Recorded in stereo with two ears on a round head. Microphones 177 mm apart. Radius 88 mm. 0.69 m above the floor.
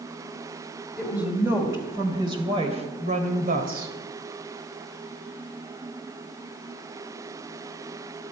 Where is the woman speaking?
5° right (ahead or behind), 3 m; by 3.9 s 50° right (ahead or behind), 2.5 m.